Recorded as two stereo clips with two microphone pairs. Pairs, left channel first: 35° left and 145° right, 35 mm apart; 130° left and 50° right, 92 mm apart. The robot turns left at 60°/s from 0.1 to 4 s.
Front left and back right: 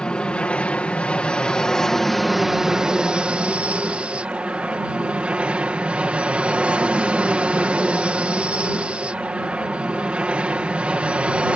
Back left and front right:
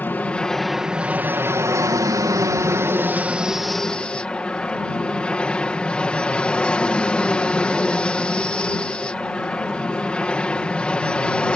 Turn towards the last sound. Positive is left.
turn(degrees=-160)